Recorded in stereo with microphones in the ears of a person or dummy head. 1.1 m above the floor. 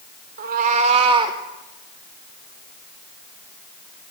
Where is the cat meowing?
45° right (ahead or behind), 1.3 m; by 1.4 s 20° right (ahead or behind), 1.3 m.